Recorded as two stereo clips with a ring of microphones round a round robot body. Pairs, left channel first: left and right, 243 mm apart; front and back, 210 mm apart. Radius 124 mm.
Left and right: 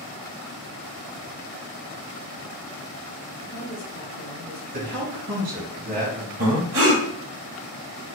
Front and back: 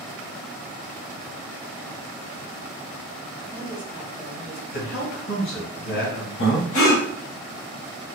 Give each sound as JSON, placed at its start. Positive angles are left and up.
{"t": 3.4, "sound": "a woman speaking", "azimuth_deg": 115, "distance_m": 1.2}
{"t": 4.7, "sound": "a man speaking", "azimuth_deg": -40, "distance_m": 2.5}
{"t": 6.4, "sound": "breathing", "azimuth_deg": -55, "distance_m": 2.0}